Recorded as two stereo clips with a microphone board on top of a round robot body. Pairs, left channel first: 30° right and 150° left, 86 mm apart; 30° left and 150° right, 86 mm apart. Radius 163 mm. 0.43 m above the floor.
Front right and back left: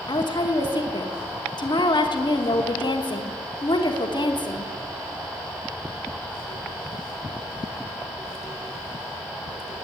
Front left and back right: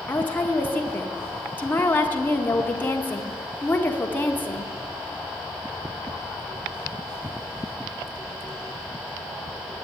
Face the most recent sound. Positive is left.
turn(degrees=-35)